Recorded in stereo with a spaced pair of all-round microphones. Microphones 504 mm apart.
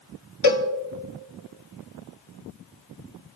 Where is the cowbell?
45° left (ahead or behind), 1.1 m.